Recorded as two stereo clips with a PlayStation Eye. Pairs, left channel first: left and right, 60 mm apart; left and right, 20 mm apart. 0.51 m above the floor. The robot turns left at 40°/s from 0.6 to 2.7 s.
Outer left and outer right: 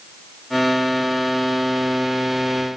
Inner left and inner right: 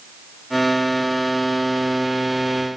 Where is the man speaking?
No man speaking in this recording.